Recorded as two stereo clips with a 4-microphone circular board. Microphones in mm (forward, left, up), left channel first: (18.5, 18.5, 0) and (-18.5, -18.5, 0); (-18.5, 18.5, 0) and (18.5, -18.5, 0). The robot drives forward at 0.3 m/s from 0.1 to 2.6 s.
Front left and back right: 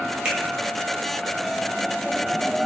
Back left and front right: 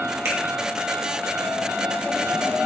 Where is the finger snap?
75° right, 0.7 m.